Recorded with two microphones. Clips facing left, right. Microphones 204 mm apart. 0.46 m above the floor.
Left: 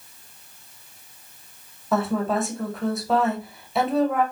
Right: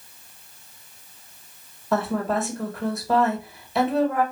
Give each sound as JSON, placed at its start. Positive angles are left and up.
{"t": 1.9, "sound": "a woman speaking", "side_deg": 0, "distance_m": 1.6}